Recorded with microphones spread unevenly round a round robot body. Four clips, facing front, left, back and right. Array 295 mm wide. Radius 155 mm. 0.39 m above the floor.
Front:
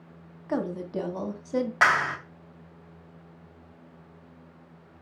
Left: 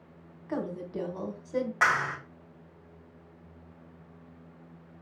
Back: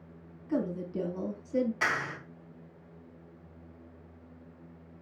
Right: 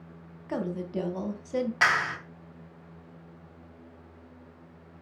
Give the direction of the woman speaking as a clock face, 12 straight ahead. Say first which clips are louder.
Right 2 dB, front 2 dB; 1 o'clock.